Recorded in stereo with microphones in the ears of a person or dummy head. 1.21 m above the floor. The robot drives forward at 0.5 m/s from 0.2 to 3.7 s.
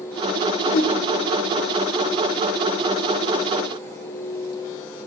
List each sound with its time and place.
0.7 s a whoosh: 40° left (ahead or behind), 4 m; by 1.0 s 45° left (ahead or behind), 4 m